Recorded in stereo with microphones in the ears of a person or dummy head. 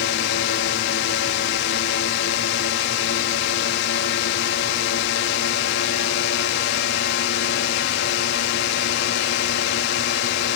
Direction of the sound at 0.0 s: 65° left (ahead or behind).